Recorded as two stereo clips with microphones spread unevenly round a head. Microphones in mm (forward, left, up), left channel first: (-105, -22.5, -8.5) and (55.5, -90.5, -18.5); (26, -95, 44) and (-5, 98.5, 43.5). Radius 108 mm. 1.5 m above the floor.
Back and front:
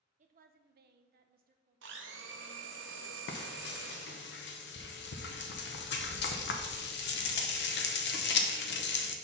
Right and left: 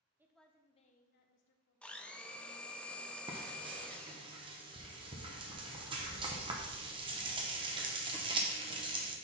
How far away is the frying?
About 0.8 m.